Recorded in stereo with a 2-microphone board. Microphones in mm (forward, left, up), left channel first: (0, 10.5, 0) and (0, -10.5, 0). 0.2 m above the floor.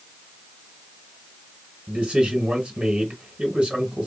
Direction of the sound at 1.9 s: 40° right (ahead or behind).